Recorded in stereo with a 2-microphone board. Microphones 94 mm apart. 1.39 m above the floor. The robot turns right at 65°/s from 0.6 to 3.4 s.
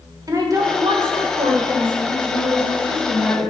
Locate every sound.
0.3 s a woman speaking: 145° right, 1.3 m; by 1.9 s 55° right, 1.3 m
2.1 s a woman speaking: 55° left, 3 m; by 3.5 s 140° left, 3 m